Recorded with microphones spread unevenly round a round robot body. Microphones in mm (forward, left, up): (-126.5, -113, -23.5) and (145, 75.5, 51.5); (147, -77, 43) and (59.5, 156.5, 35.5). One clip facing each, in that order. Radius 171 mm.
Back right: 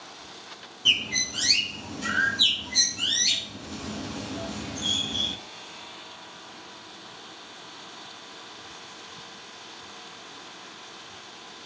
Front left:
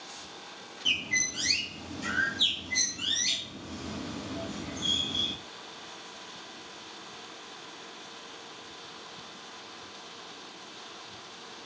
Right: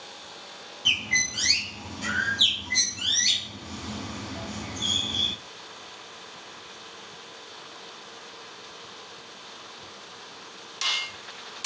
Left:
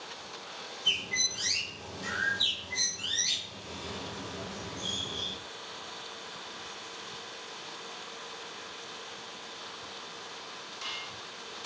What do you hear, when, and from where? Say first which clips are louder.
0.8 s a bird: back right 3 dB, right 7 dB; 70° right, 2.5 m